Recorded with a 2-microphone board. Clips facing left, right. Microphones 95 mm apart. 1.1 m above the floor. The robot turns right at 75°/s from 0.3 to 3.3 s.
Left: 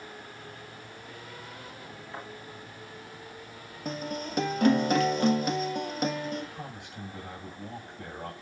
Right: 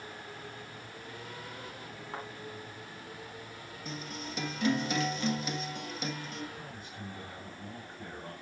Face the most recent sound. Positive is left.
turn(degrees=75)  # may be behind; listen again after turning